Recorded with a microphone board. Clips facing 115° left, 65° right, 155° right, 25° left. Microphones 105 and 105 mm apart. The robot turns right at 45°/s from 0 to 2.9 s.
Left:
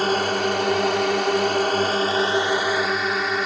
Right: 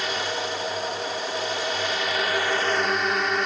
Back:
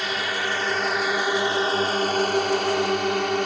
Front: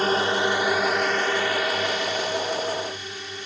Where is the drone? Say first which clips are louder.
Left 7 dB, front 6 dB; 70° left; by 3.5 s 160° right.